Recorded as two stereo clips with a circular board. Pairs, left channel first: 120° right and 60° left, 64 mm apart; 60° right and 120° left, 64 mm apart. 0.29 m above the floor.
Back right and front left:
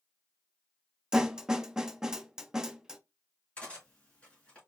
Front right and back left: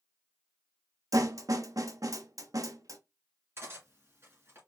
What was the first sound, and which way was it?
A snare drum, 140° left.